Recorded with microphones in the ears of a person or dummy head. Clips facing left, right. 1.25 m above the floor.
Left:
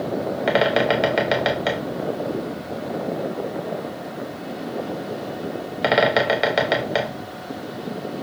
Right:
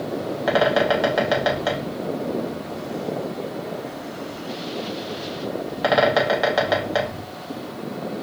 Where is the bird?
30° left (ahead or behind), 0.6 m.